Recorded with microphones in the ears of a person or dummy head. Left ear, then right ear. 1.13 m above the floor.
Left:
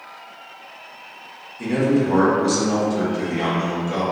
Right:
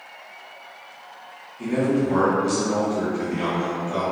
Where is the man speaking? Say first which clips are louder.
Left 3 dB; 15° left (ahead or behind), 0.7 m.